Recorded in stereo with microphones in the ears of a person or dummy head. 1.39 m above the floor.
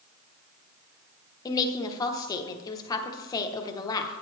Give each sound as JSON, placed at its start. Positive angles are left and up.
{"t": 1.4, "sound": "a woman speaking", "side_deg": 20, "distance_m": 1.0}